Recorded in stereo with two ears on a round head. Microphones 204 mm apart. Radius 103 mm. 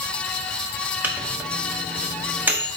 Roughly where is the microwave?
Centre.